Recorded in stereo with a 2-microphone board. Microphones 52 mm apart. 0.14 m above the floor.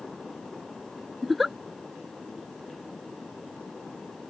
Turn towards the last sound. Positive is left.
turn(degrees=-5)  # may be behind; listen again after turning